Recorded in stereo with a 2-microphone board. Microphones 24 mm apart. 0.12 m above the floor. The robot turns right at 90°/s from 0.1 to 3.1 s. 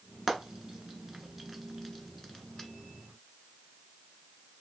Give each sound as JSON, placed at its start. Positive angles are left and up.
{"t": 0.3, "sound": "frying", "side_deg": -20, "distance_m": 0.7}